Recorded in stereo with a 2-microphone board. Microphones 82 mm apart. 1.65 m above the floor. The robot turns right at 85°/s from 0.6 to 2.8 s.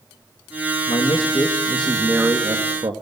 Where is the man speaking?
90° left, 2 m; by 2.9 s 105° right, 2 m.